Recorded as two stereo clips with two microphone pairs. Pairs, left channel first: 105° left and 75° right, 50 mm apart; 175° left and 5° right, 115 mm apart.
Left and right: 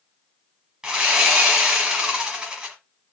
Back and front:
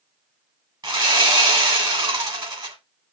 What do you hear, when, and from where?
0.8 s sawing: 20° right, 1.5 m